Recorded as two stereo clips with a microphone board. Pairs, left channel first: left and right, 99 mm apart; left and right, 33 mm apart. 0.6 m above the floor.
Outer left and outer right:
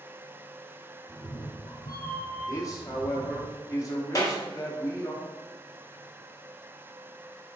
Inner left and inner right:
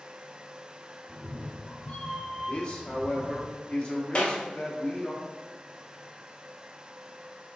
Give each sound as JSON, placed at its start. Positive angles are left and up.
{"t": 1.1, "sound": "a cat meowing", "side_deg": 50, "distance_m": 1.1}
{"t": 2.5, "sound": "a man speaking", "side_deg": 35, "distance_m": 1.0}
{"t": 4.2, "sound": "a clap", "side_deg": 35, "distance_m": 1.0}